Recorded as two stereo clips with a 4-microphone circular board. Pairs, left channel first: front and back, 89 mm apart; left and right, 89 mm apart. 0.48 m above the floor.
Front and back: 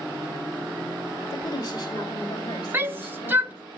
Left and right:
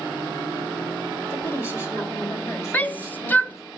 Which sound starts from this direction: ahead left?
A woman speaking, at 1.3 s.